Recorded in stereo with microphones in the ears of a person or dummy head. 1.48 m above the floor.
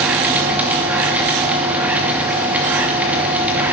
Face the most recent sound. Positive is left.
turn(degrees=-10)  # may be behind; listen again after turning